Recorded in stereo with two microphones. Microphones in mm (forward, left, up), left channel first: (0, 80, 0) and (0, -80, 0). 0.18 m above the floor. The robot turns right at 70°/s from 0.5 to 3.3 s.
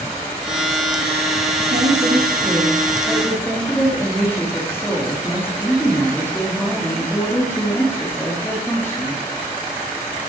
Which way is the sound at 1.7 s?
95° right.